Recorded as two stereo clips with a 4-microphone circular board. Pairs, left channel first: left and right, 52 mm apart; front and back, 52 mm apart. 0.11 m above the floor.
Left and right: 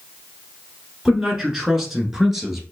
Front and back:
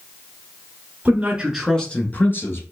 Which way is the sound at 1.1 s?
175° right.